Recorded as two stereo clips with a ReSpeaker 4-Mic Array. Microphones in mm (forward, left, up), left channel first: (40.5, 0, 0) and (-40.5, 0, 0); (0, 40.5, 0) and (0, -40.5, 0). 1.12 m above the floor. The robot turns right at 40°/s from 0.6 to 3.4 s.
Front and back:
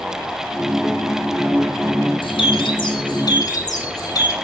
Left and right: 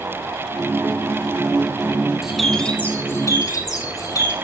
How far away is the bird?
About 3 m.